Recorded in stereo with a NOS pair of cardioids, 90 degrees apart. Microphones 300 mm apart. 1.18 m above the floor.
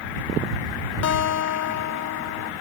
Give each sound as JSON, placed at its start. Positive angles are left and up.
{"t": 1.0, "sound": "a guitar", "azimuth_deg": 60}